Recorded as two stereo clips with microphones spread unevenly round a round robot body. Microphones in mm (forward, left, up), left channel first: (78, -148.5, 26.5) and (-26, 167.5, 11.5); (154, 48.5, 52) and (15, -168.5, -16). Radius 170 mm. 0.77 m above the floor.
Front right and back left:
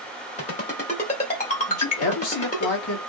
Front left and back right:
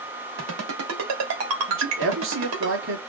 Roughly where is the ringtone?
Behind right.